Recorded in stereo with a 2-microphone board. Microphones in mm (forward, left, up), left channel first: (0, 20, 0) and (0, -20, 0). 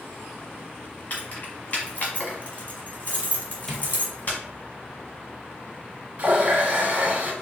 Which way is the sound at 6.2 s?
35° right (ahead or behind).